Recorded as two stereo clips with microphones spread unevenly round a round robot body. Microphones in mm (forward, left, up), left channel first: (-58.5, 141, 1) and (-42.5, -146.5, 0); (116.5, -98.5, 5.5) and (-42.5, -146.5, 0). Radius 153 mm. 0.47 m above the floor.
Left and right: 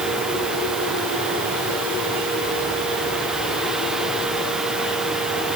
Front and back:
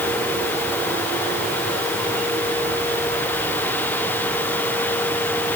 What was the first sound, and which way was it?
Only background noise.